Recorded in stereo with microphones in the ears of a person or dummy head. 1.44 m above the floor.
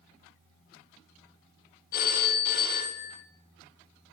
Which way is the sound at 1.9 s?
50° left (ahead or behind).